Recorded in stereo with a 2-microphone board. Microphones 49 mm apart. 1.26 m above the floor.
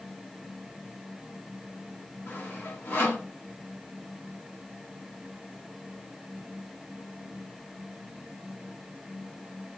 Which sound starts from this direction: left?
Sawing, at 2.3 s.